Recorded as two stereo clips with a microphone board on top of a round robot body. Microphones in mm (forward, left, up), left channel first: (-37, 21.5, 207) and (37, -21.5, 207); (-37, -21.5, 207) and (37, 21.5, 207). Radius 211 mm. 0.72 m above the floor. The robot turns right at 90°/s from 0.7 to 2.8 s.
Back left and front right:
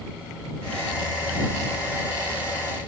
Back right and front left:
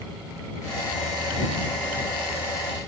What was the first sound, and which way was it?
Only background noise.